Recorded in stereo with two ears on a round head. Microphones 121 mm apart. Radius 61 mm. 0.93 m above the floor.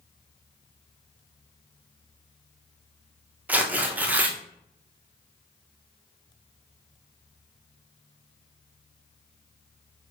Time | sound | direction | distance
3.5 | tearing paper | 15° right (ahead or behind) | 0.5 m